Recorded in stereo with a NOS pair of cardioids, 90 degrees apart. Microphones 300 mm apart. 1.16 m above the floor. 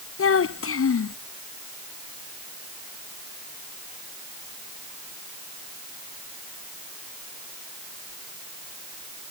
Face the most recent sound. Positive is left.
turn(degrees=45)